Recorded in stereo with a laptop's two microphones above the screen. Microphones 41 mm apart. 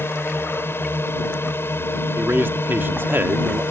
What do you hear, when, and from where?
0.0 s a drone: 75° left (ahead or behind); by 3.7 s 70° left (ahead or behind)
2.2 s a man speaking: 65° right (ahead or behind)